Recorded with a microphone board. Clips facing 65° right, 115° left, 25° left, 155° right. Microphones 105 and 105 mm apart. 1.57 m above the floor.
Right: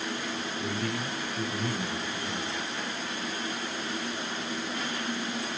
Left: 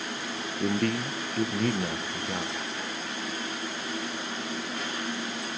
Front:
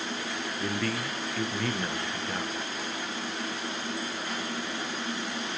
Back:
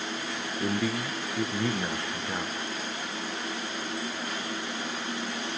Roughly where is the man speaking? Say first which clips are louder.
Left 8 dB, back 3 dB; behind left.